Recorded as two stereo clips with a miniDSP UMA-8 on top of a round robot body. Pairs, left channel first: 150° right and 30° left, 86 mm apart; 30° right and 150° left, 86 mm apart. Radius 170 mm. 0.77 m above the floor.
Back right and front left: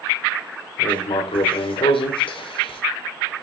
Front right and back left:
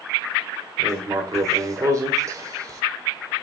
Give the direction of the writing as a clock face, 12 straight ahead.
5 o'clock.